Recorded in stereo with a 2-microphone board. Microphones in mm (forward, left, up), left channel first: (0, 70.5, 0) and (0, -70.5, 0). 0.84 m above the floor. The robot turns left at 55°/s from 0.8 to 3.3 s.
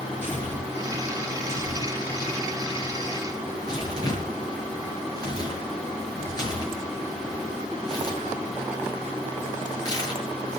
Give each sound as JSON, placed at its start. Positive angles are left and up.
{"t": 0.2, "sound": "tearing paper", "side_deg": 15, "distance_m": 8.0}